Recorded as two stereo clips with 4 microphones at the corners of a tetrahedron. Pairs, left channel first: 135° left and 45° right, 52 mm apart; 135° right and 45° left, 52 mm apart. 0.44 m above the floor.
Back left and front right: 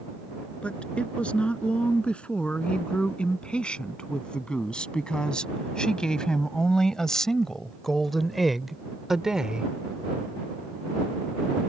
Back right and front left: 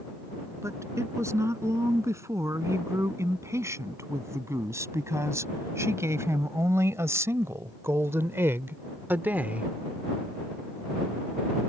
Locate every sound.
0.6 s a woman speaking: 65° left; by 9.7 s 10° left